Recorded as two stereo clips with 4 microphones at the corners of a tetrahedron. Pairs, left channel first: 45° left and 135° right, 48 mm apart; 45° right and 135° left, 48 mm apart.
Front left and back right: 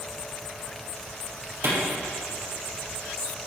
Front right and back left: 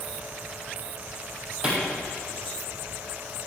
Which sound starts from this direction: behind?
A clap, at 1.6 s.